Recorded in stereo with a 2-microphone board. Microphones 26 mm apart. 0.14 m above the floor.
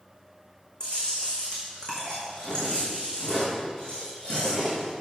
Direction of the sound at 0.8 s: 30° left (ahead or behind).